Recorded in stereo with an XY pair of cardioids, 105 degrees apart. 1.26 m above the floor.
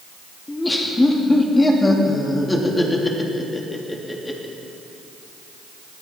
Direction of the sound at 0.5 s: 15° left.